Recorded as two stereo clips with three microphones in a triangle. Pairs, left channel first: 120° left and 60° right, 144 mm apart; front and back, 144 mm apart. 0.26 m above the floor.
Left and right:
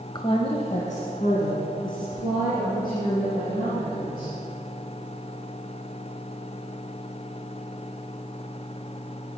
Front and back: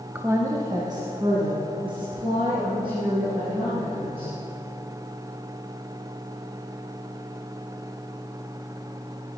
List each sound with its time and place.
0.1 s a woman speaking: 115° left, 1.0 m; by 4.3 s 125° left, 7 m